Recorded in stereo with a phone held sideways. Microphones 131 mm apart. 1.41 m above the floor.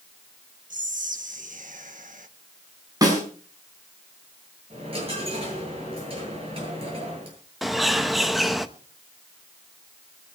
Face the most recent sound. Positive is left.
turn(degrees=0)  # may be behind; listen again after turning